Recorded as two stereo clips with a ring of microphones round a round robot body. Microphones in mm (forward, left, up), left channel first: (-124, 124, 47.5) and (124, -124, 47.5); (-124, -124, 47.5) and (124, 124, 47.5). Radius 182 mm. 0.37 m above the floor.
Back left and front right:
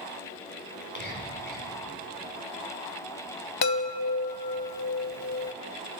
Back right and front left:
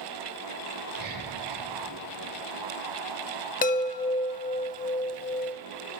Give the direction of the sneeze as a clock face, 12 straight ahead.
No sneeze in this recording.